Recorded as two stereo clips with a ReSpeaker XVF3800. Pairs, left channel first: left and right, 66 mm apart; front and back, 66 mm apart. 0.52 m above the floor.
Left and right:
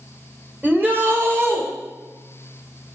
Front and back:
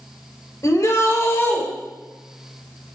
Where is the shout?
30° right, 2 m; by 1.6 s 55° right, 2 m.